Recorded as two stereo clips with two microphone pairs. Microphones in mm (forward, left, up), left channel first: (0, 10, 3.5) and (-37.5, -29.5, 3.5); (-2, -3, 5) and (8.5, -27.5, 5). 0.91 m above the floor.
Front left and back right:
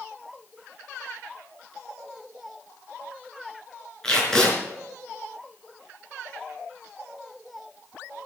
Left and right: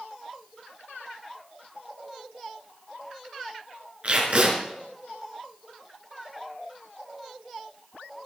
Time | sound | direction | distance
4.0 | tape being pulled | 30° right | 4.5 m